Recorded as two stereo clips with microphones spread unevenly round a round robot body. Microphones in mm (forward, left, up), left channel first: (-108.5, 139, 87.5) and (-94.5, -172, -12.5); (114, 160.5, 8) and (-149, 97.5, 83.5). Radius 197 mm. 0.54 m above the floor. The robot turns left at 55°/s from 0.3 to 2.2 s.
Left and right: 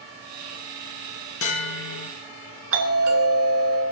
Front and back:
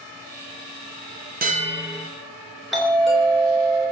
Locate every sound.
1.4 s a bell: 135° left, 3 m; by 2.1 s 100° left, 3 m
2.7 s a doorbell: 70° right, 3.5 m